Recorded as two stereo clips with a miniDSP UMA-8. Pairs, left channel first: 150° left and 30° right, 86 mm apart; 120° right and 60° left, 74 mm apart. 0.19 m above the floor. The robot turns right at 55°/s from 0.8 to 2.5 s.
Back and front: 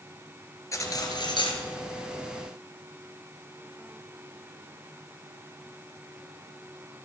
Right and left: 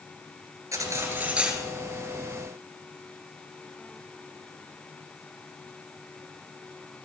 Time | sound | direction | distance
0.7 | cutlery clinking | 100° left | 2 m